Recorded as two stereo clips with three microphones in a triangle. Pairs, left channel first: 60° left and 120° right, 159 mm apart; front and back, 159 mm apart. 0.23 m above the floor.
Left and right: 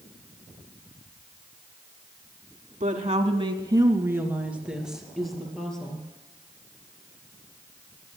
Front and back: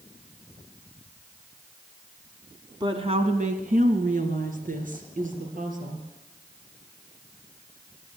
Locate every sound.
2.8 s a woman speaking: 130° right, 1.6 m; by 6.0 s 145° left, 4.5 m